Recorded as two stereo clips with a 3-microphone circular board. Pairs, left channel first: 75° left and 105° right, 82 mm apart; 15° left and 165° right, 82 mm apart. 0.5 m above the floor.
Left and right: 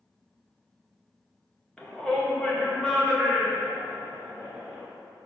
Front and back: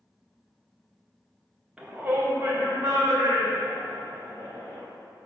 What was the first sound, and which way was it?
A shout, 135° left.